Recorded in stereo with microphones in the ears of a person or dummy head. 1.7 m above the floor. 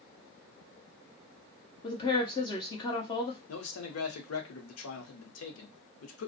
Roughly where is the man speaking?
Left.